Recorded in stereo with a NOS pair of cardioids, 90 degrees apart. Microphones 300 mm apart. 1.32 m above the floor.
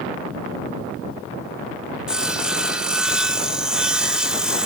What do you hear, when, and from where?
2.1 s sawing: 5° right, 0.7 m